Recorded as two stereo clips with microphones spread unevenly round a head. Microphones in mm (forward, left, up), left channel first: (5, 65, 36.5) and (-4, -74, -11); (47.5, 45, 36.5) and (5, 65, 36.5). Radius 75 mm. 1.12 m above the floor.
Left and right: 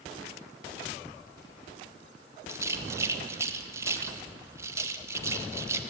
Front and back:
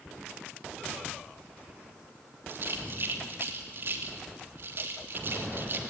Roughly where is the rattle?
Behind right.